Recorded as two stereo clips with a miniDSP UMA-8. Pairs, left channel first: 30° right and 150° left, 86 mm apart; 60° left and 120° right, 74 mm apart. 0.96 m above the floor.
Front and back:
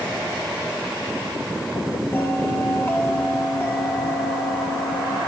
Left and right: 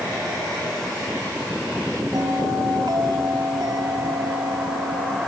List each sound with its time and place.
2.1 s a bell: 95° right, 2.5 m